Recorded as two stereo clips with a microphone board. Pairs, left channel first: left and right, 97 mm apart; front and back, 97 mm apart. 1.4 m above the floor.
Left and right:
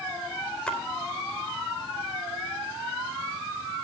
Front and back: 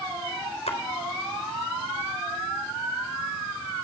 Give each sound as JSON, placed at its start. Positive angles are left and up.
{"t": 0.7, "sound": "a splash", "azimuth_deg": 10, "distance_m": 3.5}